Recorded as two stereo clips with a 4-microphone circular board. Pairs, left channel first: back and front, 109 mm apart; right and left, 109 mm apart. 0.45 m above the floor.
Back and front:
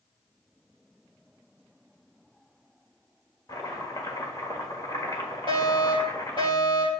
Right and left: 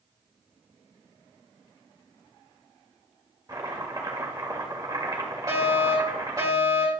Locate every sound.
3.5 s chopping: 130° left, 1.7 m
5.5 s a fire alarm: 145° left, 4.5 m